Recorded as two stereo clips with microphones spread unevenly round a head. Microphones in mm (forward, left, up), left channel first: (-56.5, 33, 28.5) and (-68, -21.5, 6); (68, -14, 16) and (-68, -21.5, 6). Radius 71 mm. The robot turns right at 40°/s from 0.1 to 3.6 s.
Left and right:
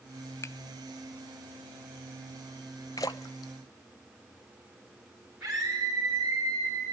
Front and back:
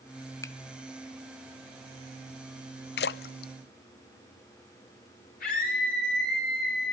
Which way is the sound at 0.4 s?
70° left.